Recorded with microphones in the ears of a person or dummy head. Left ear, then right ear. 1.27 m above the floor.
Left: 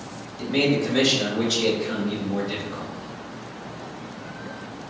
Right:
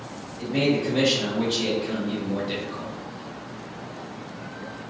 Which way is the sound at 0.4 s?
60° left (ahead or behind).